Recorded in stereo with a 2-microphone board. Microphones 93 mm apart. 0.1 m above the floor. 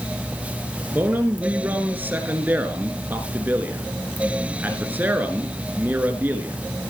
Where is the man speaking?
20° right (ahead or behind), 1.7 m.